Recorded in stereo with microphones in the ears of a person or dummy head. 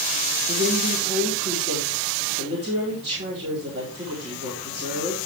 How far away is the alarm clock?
I don't hear an alarm clock.